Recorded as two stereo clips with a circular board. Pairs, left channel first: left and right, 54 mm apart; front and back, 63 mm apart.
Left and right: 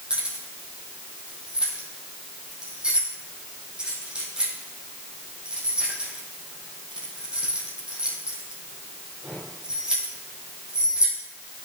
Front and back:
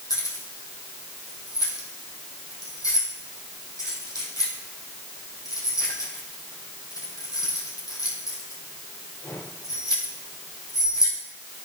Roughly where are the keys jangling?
Ahead.